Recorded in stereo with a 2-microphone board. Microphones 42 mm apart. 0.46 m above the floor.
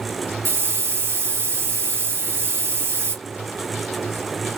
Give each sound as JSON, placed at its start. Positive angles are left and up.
{"t": 0.5, "sound": "a hiss", "side_deg": -70, "distance_m": 1.9}